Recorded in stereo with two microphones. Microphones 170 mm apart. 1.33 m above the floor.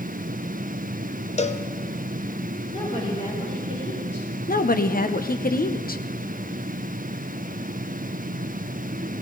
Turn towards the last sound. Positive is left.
turn(degrees=55)  # may be behind; listen again after turning